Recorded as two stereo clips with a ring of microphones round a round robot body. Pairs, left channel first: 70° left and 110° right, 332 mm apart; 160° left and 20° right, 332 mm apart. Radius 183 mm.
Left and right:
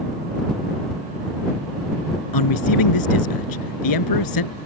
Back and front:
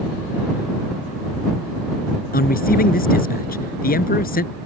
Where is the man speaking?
90° left.